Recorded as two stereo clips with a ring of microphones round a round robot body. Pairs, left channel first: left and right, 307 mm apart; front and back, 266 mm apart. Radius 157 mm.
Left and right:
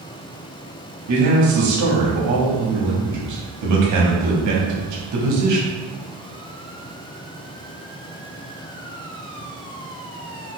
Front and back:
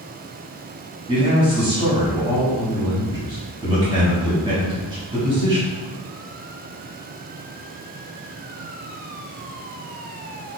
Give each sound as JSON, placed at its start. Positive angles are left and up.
{"t": 1.1, "sound": "a man speaking", "azimuth_deg": -110, "distance_m": 1.1}